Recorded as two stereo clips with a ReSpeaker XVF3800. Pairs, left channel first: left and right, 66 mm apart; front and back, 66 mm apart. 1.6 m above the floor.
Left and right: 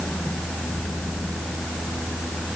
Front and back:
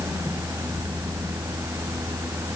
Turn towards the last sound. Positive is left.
No sound to turn to.